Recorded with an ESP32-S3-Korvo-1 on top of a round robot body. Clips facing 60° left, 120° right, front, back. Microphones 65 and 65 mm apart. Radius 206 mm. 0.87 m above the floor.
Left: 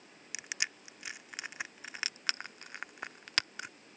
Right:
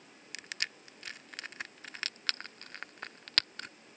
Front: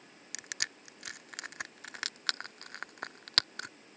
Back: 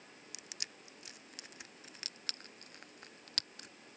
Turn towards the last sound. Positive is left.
turn(degrees=-20)